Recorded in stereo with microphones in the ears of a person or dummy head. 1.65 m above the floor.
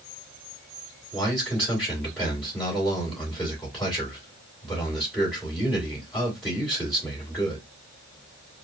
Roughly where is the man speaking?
Centre.